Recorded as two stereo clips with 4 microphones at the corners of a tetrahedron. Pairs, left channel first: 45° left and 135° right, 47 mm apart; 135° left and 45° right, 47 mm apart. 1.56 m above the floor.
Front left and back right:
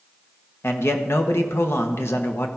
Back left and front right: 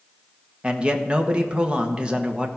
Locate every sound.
0.6 s a man speaking: 20° left, 1.2 m